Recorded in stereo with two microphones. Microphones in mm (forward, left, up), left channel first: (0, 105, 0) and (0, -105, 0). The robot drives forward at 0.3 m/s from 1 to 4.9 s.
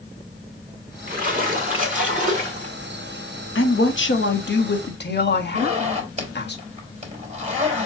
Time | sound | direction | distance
1.1 | a splash | 40° right (ahead or behind) | 2 m
3.5 | a woman speaking | 70° left (ahead or behind) | 1.2 m
5.5 | a zipper | 35° right (ahead or behind) | 3 m